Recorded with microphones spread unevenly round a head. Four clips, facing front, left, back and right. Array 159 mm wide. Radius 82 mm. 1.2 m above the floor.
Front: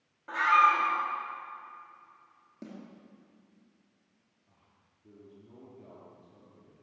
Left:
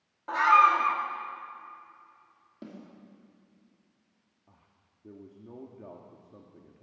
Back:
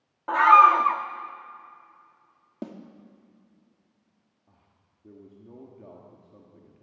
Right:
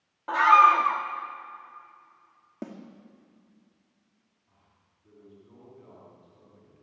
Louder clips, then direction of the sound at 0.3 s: Right 3 dB, back 8 dB; 170° right.